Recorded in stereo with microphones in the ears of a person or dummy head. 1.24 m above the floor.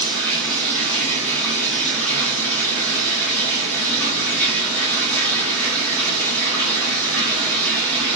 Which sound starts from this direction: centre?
Running water, at 0.0 s.